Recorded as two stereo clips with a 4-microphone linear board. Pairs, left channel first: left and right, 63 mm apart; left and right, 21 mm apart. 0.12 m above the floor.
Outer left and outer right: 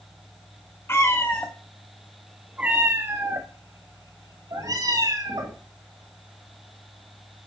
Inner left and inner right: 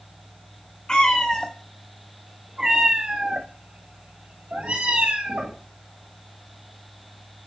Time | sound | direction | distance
0.9 | a cat meowing | 40° left (ahead or behind) | 1.7 m